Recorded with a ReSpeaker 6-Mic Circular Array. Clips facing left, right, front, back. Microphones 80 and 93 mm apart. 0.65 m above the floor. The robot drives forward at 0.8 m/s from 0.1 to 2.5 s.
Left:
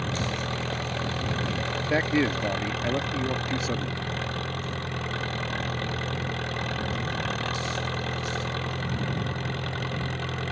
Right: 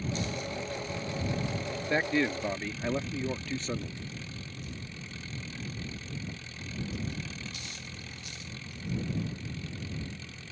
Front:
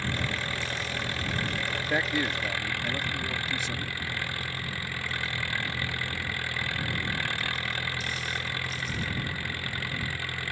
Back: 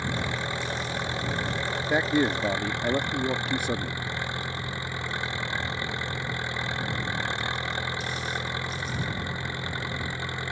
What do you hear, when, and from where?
0.0 s an engine running: 110° left
1.9 s a man speaking: 130° left; by 4.1 s 165° left